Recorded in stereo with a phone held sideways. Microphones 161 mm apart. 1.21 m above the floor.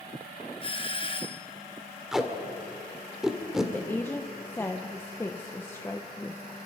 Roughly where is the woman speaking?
Centre.